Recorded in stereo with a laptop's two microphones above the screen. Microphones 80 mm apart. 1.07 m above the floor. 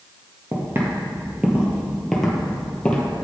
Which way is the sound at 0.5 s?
35° right (ahead or behind).